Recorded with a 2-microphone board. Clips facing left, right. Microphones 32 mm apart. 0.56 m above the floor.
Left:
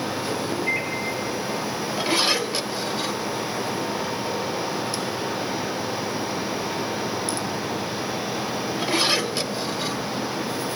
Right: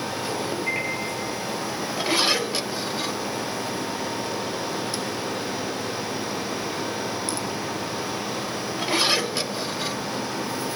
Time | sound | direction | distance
0.7 | a microwave | 20° right (ahead or behind) | 1.1 m